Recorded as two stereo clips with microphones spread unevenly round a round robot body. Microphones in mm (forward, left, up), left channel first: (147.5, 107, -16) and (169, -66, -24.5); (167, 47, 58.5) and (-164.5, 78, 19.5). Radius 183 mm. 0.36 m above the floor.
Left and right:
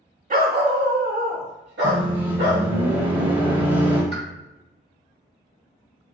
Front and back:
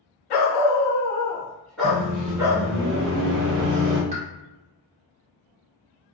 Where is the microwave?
160° left, 1.0 m.